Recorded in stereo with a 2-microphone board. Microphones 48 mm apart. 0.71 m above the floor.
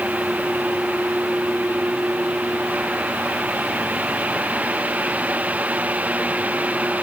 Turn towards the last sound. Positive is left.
No sound to turn to.